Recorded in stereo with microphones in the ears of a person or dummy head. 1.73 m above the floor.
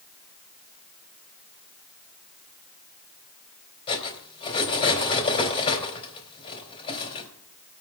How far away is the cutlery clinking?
About 4 m.